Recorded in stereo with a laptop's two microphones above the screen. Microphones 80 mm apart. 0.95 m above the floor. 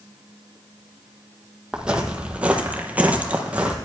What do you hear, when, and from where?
1.7 s footsteps: 10° right (ahead or behind), 1.4 m; by 3.8 s 15° right (ahead or behind), 1.2 m